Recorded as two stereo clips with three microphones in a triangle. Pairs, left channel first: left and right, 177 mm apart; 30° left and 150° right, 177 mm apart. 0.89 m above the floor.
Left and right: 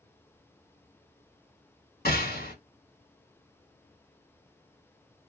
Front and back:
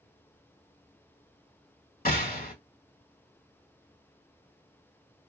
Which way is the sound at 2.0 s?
60° left.